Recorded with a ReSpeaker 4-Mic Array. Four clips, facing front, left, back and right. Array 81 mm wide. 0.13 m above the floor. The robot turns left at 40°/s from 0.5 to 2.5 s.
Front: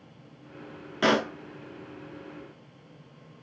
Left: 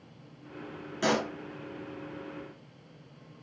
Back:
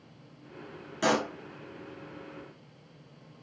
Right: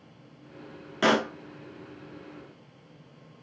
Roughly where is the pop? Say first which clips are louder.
Right 5 dB, front 3 dB; ahead right.